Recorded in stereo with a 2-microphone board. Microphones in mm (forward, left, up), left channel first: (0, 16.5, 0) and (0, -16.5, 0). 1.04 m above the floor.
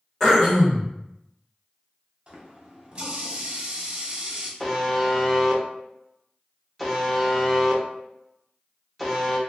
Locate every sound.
0.2 s throat clearing: 10° left (ahead or behind), 1.3 m
2.3 s a running tap: 30° right (ahead or behind), 0.8 m
4.6 s a buzzer: 5° left (ahead or behind), 0.6 m